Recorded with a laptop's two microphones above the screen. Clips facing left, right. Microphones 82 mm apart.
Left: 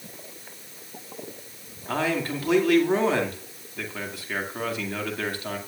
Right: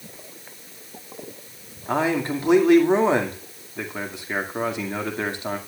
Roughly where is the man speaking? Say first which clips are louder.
Right 4 dB; right.